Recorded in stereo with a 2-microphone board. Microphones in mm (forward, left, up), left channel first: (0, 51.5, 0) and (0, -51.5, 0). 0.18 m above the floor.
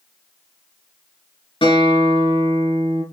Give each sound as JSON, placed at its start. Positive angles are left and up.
{"t": 1.6, "sound": "a guitar", "side_deg": 60, "distance_m": 3.0}